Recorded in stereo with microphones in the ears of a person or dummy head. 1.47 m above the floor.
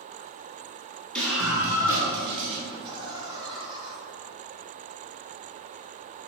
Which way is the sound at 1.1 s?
5° left (ahead or behind).